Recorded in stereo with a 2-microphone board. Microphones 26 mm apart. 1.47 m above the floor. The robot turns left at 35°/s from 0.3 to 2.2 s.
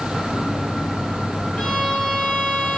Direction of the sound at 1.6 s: 70° left (ahead or behind).